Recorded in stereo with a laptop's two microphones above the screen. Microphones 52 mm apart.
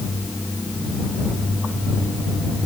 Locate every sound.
Only background noise.